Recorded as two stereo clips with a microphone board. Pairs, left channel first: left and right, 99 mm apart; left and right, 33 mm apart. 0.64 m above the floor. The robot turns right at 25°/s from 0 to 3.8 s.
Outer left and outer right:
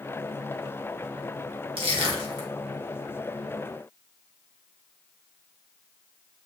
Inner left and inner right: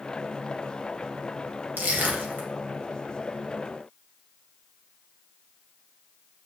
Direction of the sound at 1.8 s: 70° right (ahead or behind).